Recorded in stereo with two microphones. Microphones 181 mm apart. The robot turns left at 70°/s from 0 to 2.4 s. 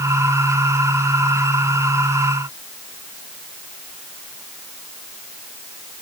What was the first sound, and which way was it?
Only background noise.